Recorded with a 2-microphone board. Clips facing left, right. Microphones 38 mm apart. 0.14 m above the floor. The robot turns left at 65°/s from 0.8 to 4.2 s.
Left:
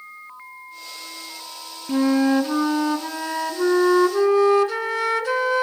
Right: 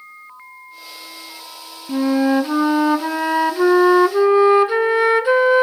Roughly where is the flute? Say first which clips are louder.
Right 2 dB; ahead.